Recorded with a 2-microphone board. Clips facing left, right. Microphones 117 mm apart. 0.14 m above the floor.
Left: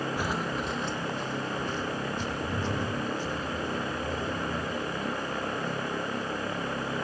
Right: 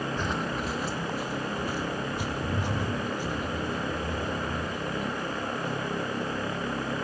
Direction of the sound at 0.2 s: 10° left (ahead or behind).